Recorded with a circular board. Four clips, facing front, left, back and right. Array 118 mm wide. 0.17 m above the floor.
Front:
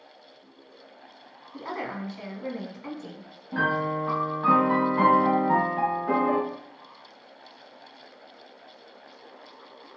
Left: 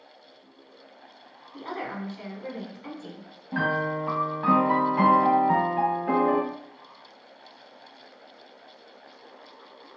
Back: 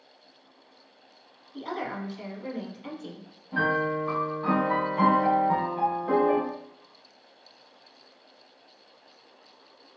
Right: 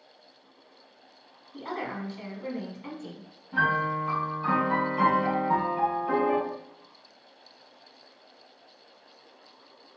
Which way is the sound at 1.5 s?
5° right.